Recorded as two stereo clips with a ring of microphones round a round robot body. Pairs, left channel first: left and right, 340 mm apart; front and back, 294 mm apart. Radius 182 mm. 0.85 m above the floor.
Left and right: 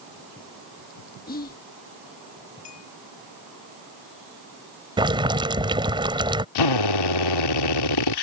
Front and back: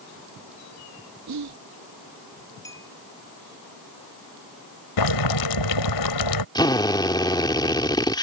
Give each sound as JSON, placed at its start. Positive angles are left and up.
{"t": 1.3, "sound": "whispering", "azimuth_deg": 155}
{"t": 2.6, "sound": "a clink", "azimuth_deg": 80}
{"t": 5.0, "sound": "boiling", "azimuth_deg": -15}
{"t": 6.5, "sound": "a drill", "azimuth_deg": 75}